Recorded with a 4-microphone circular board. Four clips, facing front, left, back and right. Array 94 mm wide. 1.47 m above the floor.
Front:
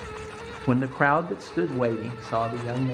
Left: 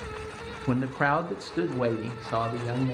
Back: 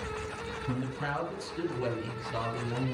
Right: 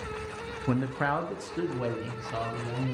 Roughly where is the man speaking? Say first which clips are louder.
Left 3 dB, front 13 dB; ahead.